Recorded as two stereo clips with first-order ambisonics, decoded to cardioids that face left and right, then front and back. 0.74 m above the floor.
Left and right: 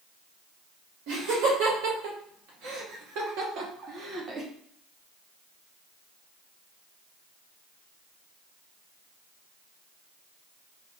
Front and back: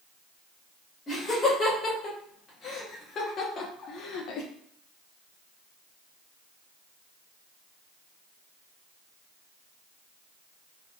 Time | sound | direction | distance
1.1 | laughter | 75° right | 2.5 m